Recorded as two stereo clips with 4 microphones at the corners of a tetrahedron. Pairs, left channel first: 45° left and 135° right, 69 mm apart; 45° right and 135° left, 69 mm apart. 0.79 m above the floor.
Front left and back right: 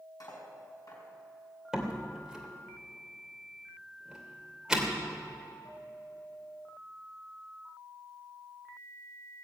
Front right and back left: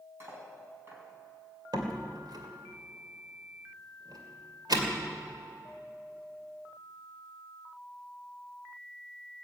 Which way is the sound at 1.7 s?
145° left.